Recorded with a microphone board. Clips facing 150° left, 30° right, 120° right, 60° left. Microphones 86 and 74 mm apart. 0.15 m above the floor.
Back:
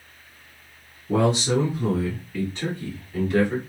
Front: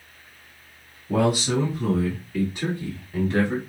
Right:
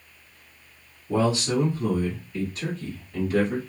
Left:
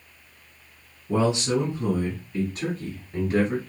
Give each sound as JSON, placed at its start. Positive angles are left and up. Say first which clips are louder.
{"t": 1.1, "sound": "a man speaking", "louder": "back 1 dB, left 1 dB", "azimuth_deg": 120, "distance_m": 1.5}